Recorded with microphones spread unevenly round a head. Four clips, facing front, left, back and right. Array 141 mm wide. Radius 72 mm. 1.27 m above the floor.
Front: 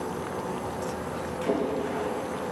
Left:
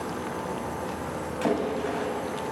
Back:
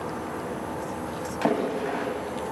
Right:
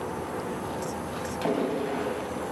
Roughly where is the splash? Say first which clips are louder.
Left 1 dB, back 2 dB; behind.